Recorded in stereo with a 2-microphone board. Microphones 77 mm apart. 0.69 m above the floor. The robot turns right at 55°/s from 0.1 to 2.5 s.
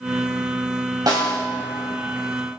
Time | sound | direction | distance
1.1 | a snare drum | 60° right (ahead or behind) | 2.0 m